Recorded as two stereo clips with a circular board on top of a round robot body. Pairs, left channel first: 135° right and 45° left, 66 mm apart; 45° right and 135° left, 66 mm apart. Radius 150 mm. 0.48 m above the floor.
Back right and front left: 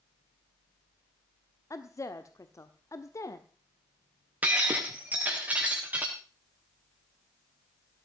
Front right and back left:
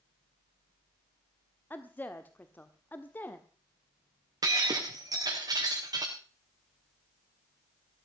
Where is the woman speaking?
105° right, 1.6 m.